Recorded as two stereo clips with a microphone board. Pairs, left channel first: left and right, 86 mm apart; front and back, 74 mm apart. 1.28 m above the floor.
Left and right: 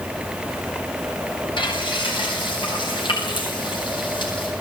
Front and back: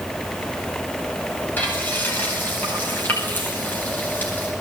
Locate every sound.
1.6 s frying: 65° left, 9.5 m